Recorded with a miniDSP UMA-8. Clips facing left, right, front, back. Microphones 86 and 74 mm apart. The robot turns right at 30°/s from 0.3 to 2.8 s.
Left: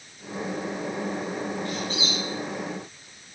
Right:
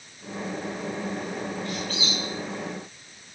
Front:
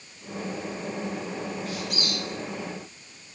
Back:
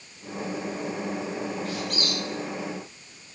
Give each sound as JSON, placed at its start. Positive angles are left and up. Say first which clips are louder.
{"t": 1.6, "sound": "a squeak", "louder": "left 1 dB, back 2 dB", "azimuth_deg": 145, "distance_m": 4.0}